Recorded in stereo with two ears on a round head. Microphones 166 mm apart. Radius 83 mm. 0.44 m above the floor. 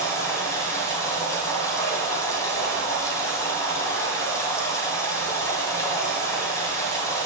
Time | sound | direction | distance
0.0 | running water | 15° left (ahead or behind) | 2.5 m